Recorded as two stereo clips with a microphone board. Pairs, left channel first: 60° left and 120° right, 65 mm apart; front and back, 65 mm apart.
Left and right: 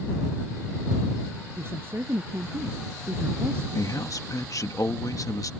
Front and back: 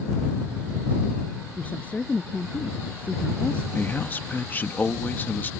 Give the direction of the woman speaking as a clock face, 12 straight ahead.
2 o'clock.